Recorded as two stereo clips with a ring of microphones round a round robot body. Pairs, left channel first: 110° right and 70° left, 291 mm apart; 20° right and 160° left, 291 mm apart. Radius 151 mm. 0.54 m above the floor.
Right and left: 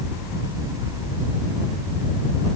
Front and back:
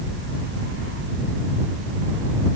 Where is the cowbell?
No cowbell in this recording.